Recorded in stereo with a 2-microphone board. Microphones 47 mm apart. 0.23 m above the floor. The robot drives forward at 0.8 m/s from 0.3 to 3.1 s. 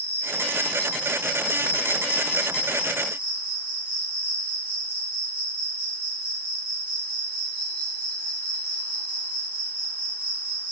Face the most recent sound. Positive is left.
turn(degrees=50)  # may be behind; listen again after turning